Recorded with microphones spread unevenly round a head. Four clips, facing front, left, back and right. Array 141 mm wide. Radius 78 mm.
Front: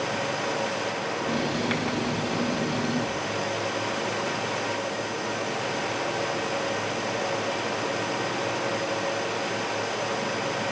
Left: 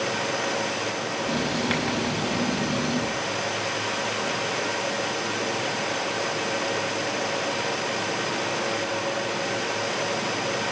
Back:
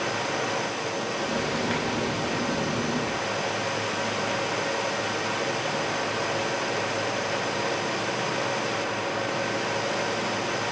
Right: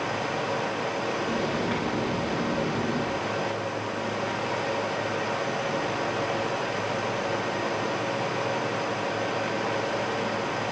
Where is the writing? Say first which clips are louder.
Left 1 dB, front 2 dB; 75° left, 5.5 m.